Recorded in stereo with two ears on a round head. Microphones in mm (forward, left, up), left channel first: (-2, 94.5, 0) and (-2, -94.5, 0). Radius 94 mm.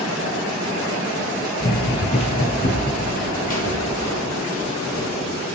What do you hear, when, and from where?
1.6 s running footsteps: 20° left (ahead or behind), 1.0 m; by 5.1 s 40° left (ahead or behind), 2.5 m